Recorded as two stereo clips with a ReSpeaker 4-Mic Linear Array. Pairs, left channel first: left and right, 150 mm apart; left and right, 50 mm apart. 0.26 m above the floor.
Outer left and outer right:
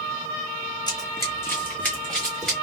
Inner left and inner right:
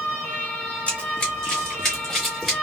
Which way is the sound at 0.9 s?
30° left (ahead or behind).